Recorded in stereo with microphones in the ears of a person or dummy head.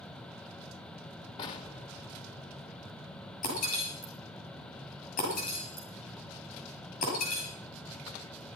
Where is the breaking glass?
40° left (ahead or behind), 7 m.